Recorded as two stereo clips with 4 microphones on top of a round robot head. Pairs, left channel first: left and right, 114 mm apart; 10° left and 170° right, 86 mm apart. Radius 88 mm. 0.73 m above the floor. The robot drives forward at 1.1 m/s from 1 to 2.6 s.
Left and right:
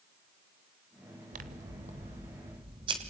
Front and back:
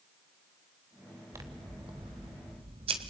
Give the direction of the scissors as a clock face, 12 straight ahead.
3 o'clock.